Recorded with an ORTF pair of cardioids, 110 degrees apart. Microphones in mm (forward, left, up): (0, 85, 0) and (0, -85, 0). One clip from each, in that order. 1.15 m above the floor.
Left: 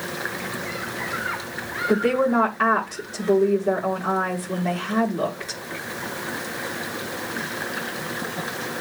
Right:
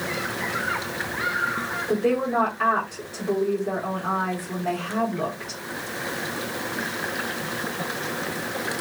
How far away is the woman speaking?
About 3.5 m.